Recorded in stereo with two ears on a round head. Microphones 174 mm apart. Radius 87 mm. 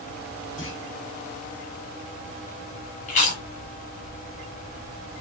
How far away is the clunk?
About 1.5 m.